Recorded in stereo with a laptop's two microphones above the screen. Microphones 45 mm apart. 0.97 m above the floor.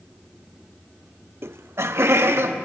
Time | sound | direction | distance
1.4 | laughter | 60° right (ahead or behind) | 0.6 m